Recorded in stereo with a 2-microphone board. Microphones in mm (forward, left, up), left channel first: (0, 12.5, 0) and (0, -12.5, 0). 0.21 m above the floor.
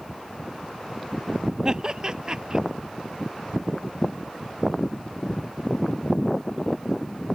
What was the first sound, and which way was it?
Laughter, 30° right (ahead or behind).